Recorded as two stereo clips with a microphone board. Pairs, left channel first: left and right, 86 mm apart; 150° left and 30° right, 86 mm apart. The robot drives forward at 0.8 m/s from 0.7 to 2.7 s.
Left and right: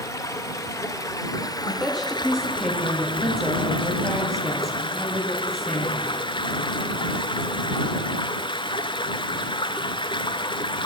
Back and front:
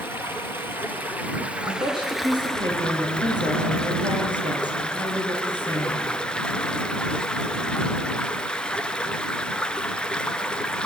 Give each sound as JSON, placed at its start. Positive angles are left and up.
{"t": 0.0, "sound": "running water", "azimuth_deg": 35, "distance_m": 2.5}
{"t": 1.6, "sound": "a woman speaking", "azimuth_deg": 0, "distance_m": 8.0}